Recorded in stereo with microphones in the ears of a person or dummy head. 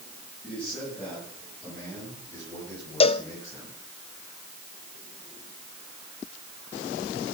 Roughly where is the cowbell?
Left.